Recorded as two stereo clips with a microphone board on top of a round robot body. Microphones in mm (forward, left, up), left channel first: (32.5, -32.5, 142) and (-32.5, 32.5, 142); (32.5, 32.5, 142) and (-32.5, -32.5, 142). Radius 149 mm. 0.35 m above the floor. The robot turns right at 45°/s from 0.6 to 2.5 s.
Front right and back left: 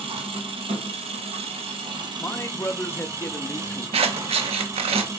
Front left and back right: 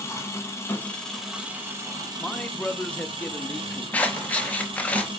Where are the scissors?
120° left, 0.5 m.